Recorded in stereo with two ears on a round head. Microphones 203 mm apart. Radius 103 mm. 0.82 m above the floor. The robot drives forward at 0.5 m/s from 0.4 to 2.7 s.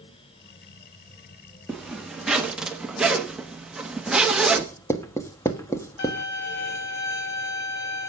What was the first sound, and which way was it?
A zipper, centre (ahead or behind).